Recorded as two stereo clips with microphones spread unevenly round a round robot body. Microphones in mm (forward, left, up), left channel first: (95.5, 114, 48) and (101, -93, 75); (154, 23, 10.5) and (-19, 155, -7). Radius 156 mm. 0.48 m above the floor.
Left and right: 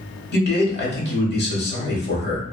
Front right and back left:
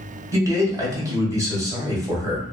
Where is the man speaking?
70° left, 1.6 m.